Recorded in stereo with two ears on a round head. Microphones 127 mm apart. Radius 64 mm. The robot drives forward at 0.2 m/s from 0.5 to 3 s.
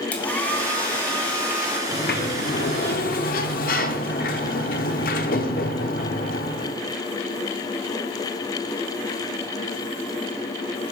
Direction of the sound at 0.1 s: 10° left (ahead or behind).